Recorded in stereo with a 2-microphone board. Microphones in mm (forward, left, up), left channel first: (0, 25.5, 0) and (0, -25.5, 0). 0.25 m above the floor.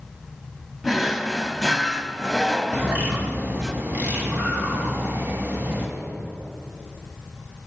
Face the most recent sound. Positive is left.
turn(degrees=-45)  # may be behind; listen again after turning